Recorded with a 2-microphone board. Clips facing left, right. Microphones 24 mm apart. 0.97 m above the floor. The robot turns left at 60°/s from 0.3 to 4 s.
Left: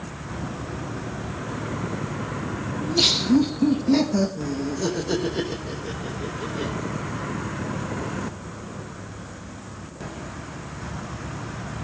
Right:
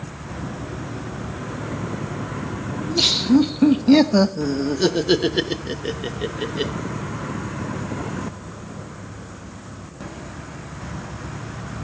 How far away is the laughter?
About 1.1 m.